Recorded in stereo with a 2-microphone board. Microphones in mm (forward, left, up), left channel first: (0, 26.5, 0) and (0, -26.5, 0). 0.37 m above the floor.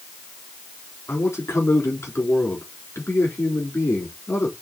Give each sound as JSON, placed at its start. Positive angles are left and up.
{"t": 1.1, "sound": "a man speaking", "side_deg": 60, "distance_m": 4.0}